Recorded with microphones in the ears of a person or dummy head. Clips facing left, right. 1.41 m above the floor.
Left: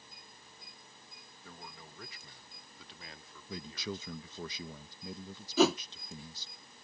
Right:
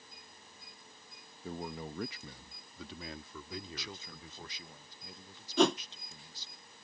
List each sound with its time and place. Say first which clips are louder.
1.4 s a man speaking: right 12 dB; 25° right (ahead or behind); by 4.5 s 75° right (ahead or behind)
3.5 s a man speaking: left 5 dB; 75° left (ahead or behind)
5.6 s a whoosh: left 1 dB; centre (ahead or behind)